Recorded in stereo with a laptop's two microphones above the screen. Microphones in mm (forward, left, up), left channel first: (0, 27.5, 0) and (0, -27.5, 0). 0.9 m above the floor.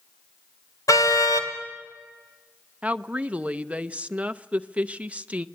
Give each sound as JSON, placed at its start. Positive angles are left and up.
{"t": 0.9, "sound": "a car horn", "side_deg": 80, "distance_m": 2.5}
{"t": 2.8, "sound": "a woman speaking", "side_deg": -20, "distance_m": 0.5}